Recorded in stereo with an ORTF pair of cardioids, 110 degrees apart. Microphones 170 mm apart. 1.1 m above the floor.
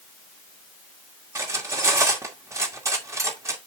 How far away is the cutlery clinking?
About 2.0 m.